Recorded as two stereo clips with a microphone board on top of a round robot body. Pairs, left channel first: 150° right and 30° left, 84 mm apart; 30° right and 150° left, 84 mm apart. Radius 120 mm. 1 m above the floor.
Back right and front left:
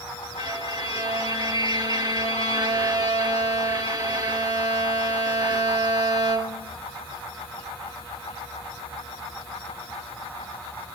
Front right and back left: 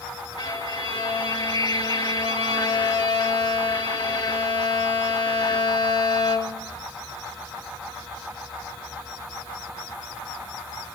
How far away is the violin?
About 1.4 m.